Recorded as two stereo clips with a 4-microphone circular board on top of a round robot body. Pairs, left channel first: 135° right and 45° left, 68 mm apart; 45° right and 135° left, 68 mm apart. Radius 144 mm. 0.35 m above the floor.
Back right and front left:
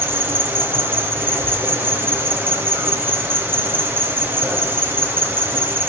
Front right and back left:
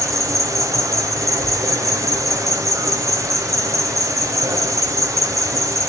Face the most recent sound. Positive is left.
turn(degrees=100)